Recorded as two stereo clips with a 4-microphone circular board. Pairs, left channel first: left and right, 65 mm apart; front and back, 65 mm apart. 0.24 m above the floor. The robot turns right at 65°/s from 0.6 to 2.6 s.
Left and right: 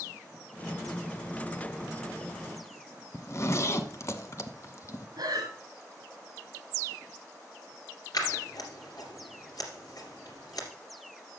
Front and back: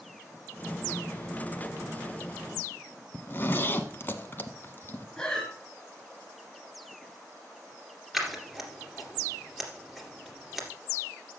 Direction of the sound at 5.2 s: 80° right.